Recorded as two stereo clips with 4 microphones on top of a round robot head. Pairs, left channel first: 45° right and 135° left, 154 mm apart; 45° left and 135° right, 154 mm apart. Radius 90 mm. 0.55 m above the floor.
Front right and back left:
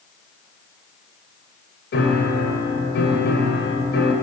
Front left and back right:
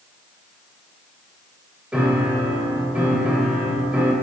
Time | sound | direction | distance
1.9 | a piano | 55° right | 1.4 m